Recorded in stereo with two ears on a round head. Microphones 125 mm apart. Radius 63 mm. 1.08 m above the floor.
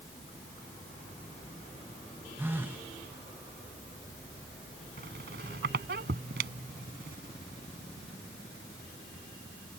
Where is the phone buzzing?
15° right (ahead or behind).